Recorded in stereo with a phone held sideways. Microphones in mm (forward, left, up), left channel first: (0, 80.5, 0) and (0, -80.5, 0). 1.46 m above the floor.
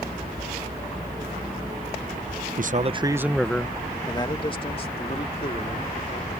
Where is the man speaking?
60° right (ahead or behind); by 6.3 s 45° left (ahead or behind).